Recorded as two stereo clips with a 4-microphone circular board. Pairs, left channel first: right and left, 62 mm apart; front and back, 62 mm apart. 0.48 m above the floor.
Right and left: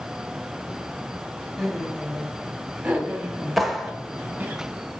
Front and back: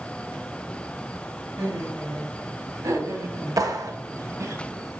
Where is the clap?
175° left, 1.5 m.